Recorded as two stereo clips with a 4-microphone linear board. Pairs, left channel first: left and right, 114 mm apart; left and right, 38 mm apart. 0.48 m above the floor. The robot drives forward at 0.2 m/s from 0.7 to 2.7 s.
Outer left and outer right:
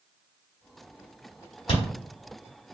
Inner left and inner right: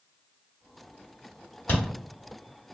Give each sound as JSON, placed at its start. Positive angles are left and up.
{"t": 1.7, "sound": "chewing", "side_deg": 50, "distance_m": 1.4}